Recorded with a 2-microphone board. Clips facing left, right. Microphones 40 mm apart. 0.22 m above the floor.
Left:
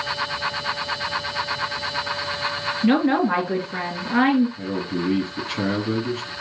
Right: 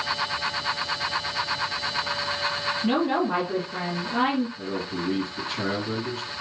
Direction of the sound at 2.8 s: 55° left (ahead or behind).